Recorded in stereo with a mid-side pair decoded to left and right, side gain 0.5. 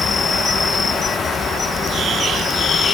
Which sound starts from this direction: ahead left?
An insect, at 0.0 s.